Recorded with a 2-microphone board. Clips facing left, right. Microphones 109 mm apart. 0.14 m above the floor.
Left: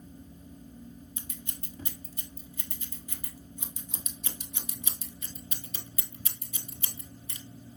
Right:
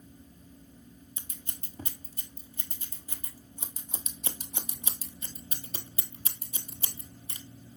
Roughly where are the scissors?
Right.